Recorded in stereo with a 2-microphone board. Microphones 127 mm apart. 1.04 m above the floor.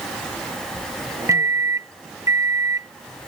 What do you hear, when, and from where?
1.3 s a microwave: 25° right (ahead or behind)